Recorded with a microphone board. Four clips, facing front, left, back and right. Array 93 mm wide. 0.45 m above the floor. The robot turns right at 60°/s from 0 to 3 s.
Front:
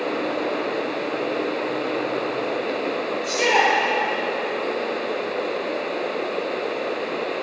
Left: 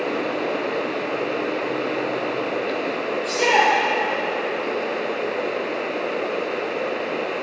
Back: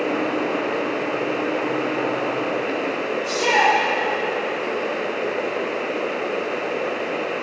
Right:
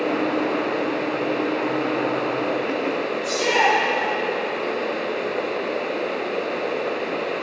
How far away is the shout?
About 9 m.